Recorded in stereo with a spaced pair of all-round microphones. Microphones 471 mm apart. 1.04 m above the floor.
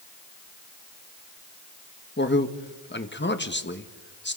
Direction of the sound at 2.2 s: 25° left (ahead or behind).